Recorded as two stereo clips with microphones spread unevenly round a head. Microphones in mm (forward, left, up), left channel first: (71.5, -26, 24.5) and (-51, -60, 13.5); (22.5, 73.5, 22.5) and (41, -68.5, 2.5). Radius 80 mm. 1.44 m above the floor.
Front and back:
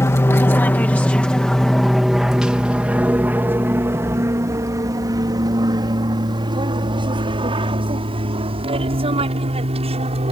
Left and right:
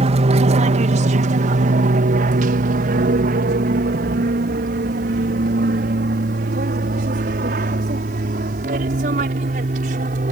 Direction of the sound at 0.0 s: 50° right.